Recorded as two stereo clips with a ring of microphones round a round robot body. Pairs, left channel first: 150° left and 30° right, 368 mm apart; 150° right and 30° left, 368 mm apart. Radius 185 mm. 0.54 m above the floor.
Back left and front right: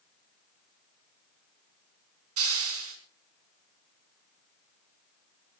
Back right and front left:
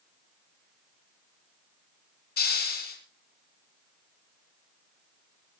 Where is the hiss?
85° right, 4 m.